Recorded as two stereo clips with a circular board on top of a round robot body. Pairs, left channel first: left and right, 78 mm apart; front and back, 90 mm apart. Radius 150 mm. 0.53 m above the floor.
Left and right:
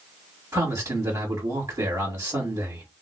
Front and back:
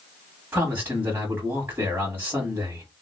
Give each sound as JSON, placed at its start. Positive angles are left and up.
{"t": 0.5, "sound": "a man speaking", "azimuth_deg": -125, "distance_m": 1.8}